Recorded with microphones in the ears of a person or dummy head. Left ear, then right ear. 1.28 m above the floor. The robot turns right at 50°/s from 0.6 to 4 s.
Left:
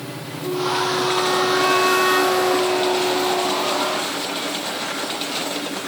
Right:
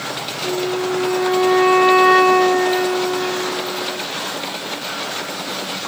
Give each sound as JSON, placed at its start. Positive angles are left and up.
{"t": 0.4, "sound": "a flute", "azimuth_deg": 140, "distance_m": 0.6}